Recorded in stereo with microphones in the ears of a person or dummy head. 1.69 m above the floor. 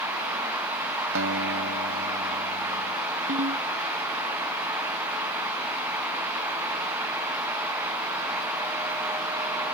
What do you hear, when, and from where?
1.1 s a guitar: 70° right (ahead or behind)
3.3 s a ringtone: 40° right (ahead or behind)